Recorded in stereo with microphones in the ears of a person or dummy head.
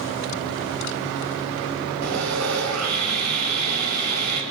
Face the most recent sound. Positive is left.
turn(degrees=-90)